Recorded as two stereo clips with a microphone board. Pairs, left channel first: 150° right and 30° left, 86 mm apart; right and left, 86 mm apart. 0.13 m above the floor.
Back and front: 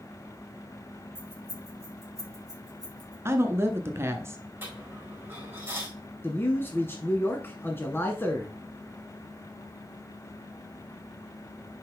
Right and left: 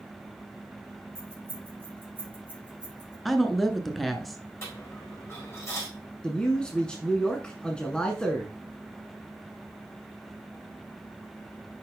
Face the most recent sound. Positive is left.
turn(degrees=-155)